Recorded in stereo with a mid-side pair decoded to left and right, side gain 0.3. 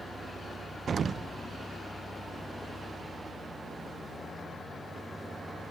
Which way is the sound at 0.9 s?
65° right.